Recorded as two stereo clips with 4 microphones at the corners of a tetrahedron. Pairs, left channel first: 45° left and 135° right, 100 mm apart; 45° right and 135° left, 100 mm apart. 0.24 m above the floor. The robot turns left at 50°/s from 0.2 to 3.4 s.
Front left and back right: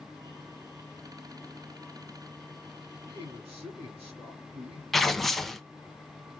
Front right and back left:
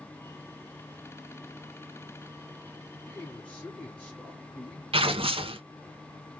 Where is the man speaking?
110° right, 2.5 m; by 4.8 s 130° right, 2.5 m.